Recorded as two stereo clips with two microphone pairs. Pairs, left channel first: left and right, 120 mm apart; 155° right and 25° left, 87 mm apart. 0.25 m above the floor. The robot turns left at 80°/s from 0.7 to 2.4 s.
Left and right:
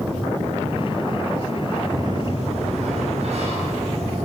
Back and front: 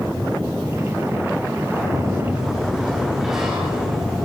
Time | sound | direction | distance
1.7 | a sliding door | 5° right | 5.5 m